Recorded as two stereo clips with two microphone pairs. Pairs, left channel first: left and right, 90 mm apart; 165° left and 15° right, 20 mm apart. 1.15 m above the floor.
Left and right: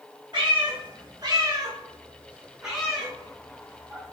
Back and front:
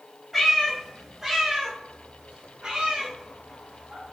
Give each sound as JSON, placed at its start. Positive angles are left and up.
{"t": 0.3, "sound": "a cat meowing", "azimuth_deg": -100, "distance_m": 1.5}